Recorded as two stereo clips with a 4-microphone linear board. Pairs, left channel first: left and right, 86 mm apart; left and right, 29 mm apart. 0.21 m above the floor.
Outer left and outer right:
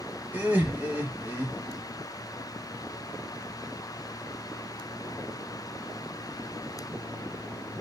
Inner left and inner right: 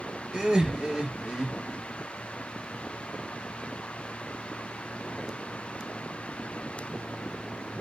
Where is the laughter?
20° right (ahead or behind), 1.0 m.